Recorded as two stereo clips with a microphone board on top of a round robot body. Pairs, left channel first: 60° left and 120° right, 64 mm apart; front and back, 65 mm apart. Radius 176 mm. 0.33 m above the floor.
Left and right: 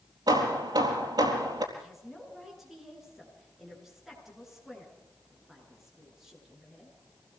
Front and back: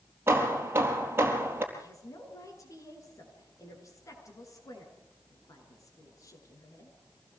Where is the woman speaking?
35° right, 8 m.